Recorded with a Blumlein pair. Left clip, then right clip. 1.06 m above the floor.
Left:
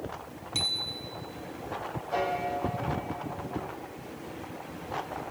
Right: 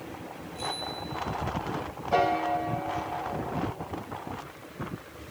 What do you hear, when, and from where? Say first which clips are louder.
0.6 s a bicycle bell: left 4 dB; 40° left, 4 m
2.1 s a piano: right 5 dB; 20° right, 1.7 m